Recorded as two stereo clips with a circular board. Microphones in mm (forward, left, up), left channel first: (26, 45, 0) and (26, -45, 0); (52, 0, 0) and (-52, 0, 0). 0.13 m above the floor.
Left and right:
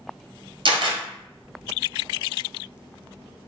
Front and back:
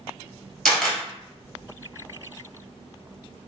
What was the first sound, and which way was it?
A camera shutter, 90° right.